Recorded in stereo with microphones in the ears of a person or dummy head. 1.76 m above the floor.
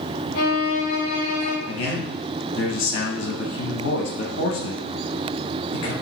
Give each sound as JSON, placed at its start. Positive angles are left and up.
{"t": 0.3, "sound": "a violin", "side_deg": 50, "distance_m": 1.0}
{"t": 1.7, "sound": "a man speaking", "side_deg": 70, "distance_m": 0.8}